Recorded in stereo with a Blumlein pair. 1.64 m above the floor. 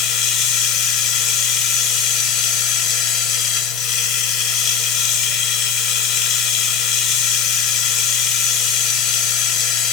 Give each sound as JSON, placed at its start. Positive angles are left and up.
{"t": 0.0, "sound": "running water", "azimuth_deg": 35, "distance_m": 0.8}